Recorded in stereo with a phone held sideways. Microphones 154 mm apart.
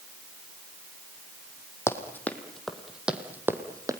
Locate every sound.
1.9 s running footsteps: 15° left (ahead or behind), 1.8 m; by 4.0 s 25° right (ahead or behind), 1.8 m